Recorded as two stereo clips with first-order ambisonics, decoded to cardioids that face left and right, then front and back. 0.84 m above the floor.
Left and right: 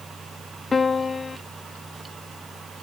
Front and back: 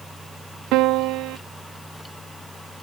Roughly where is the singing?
I don't hear singing.